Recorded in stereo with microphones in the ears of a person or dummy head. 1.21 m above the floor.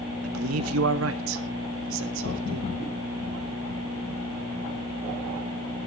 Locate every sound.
0.2 s a man speaking: 80° right, 1.4 m; by 2.7 s 65° right (ahead or behind), 2.5 m